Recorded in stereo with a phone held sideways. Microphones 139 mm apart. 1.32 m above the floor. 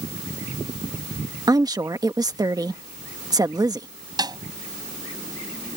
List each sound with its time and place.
1.5 s a woman speaking: 25° right (ahead or behind)
4.2 s a snare drum: 30° right (ahead or behind)